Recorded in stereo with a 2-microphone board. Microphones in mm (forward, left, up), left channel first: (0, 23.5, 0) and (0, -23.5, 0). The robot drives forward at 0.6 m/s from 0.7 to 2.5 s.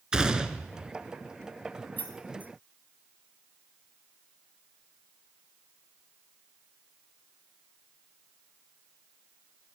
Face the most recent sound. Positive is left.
turn(degrees=45)  # may be behind; listen again after turning